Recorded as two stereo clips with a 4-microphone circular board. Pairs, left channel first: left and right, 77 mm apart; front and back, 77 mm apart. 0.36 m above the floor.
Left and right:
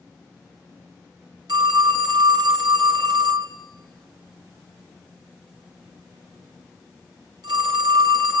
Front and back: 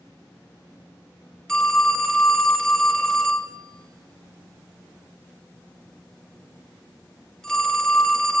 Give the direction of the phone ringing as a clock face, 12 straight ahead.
3 o'clock.